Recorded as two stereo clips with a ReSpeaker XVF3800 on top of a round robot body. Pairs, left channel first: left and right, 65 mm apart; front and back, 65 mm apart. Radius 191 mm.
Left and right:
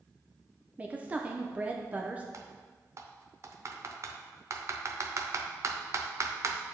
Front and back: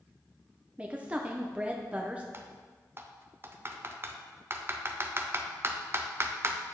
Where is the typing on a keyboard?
125° right, 0.8 m.